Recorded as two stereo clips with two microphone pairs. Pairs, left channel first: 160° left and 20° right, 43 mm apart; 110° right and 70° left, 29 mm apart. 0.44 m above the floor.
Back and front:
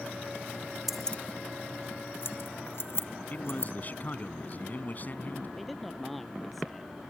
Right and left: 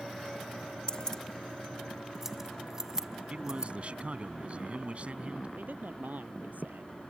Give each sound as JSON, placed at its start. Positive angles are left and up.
{"t": 0.9, "sound": "keys jangling", "azimuth_deg": -90}
{"t": 3.3, "sound": "a man speaking", "azimuth_deg": 115}
{"t": 5.6, "sound": "a man speaking", "azimuth_deg": 75}